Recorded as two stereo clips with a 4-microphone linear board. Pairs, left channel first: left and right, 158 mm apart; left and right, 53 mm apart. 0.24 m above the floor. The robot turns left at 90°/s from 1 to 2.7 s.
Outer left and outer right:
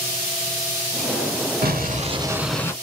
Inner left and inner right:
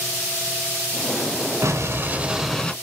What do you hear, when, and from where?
1.6 s an explosion: 100° right, 0.5 m; by 2.7 s 160° left, 0.5 m